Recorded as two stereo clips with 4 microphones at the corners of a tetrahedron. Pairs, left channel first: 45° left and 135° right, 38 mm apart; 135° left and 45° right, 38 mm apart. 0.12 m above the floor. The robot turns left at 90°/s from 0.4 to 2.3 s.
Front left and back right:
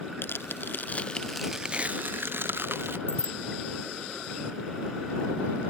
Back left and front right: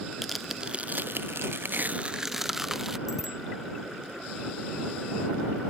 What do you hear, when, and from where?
0.2 s tearing paper: 45° left; by 3.0 s 125° right
3.1 s a bicycle bell: 40° left